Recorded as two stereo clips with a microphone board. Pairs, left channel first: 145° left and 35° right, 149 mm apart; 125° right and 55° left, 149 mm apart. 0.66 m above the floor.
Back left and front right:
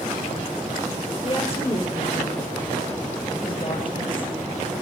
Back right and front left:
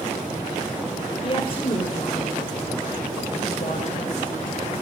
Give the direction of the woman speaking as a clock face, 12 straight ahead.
6 o'clock.